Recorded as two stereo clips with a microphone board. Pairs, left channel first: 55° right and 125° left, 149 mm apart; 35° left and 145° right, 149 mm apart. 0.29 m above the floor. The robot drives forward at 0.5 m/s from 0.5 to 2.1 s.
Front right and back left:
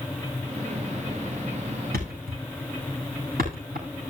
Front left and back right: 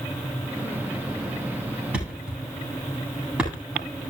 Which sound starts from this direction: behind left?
A thud, at 1.9 s.